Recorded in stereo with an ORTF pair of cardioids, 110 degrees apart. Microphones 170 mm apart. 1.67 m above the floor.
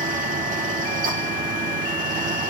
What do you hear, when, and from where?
0.0 s a fan: 55° right, 3.5 m